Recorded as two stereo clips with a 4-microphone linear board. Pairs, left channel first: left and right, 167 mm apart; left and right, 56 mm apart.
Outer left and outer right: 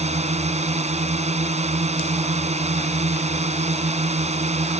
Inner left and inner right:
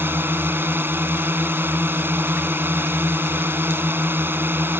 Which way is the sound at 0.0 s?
40° right (ahead or behind).